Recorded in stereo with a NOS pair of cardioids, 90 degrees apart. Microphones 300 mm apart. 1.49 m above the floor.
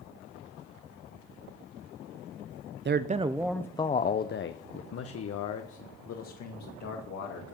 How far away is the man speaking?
About 0.7 m.